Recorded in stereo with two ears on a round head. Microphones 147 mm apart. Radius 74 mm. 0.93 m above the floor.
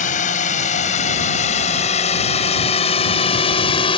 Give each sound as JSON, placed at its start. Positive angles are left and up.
{"t": 0.0, "sound": "a drone", "side_deg": 50}